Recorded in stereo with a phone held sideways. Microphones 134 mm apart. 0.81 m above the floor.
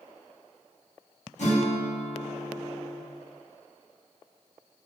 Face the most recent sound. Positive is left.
turn(degrees=60)  # may be behind; listen again after turning